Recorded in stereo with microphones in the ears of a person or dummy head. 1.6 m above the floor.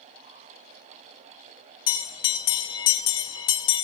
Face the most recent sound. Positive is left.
turn(degrees=25)  # may be behind; listen again after turning